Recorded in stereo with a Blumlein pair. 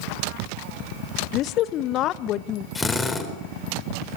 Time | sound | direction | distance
1.3 | a woman speaking | 35° left | 1.2 m
2.8 | a drill | 10° left | 4 m